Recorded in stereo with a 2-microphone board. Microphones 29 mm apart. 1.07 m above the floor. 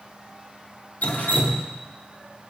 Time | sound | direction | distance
1.0 | dripping | 65° left (ahead or behind) | 1.0 m